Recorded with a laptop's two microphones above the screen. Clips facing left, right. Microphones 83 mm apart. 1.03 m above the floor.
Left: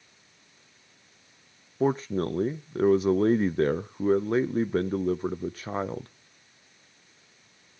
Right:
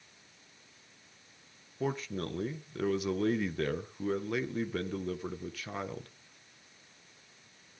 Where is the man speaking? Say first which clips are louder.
Left 9 dB; 35° left (ahead or behind), 0.6 m.